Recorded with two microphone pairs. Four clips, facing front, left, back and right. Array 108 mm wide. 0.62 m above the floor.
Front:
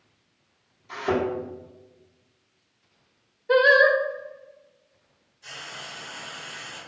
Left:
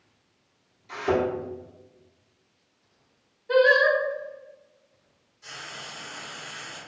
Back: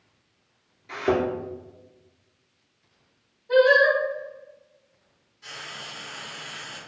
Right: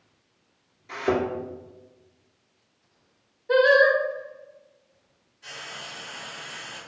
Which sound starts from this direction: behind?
Frying, at 5.4 s.